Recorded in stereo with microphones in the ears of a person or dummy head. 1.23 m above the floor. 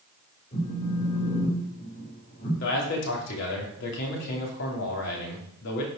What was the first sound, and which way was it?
A phone buzzing, 40° left (ahead or behind).